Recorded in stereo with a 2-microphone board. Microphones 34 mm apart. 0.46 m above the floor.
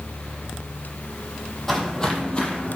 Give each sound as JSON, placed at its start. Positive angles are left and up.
{"t": 1.7, "sound": "footsteps", "side_deg": 10, "distance_m": 0.6}